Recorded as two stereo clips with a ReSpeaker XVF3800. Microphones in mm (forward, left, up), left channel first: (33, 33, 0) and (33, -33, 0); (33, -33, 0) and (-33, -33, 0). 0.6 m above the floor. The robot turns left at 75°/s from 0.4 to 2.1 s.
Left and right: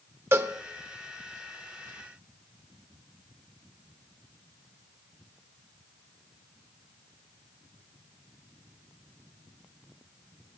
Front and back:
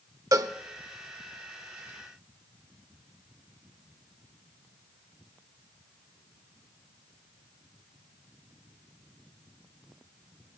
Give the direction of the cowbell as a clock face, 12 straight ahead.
5 o'clock.